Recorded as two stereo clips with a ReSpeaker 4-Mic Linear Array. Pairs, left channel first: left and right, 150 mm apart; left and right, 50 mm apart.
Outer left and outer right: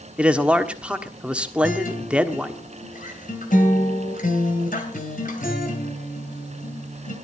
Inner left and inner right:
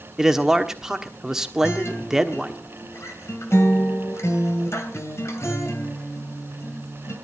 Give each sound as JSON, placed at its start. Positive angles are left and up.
{"t": 0.2, "sound": "a man speaking", "side_deg": -10, "distance_m": 1.3}
{"t": 1.6, "sound": "a guitar", "side_deg": 65, "distance_m": 3.0}